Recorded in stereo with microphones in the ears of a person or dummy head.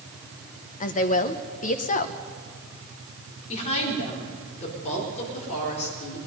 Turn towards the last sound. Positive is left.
turn(degrees=35)  # may be behind; listen again after turning